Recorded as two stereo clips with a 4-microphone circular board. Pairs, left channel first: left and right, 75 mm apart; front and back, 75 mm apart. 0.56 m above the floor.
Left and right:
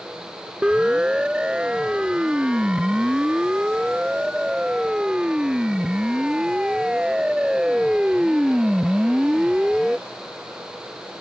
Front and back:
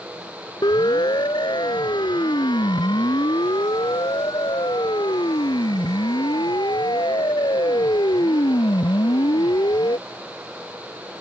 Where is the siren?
10° right.